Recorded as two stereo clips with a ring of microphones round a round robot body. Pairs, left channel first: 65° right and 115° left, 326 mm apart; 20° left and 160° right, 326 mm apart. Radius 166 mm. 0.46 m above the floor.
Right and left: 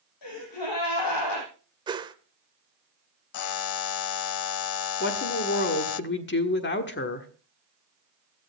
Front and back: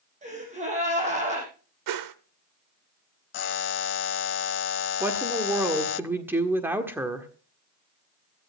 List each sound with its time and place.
0.2 s a gasp: 90° right, 5.5 m
1.9 s a whoosh: 170° right, 0.9 m
3.3 s a buzzer: 30° right, 0.5 m
5.0 s a woman speaking: 80° right, 1.5 m